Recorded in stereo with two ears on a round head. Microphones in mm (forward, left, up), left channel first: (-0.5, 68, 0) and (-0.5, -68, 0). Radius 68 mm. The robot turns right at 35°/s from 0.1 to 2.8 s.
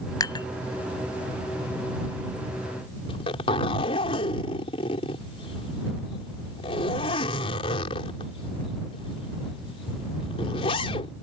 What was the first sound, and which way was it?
Dishes clattering, 25° left (ahead or behind).